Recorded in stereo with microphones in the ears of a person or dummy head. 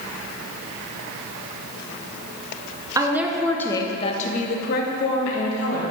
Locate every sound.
3.0 s a woman speaking: 20° right (ahead or behind), 0.9 m; by 5.8 s 70° left (ahead or behind), 1.8 m